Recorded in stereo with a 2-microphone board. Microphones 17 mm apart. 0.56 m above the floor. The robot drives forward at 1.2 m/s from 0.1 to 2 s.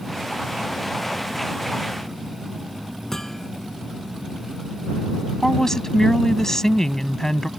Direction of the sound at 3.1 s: 25° left (ahead or behind).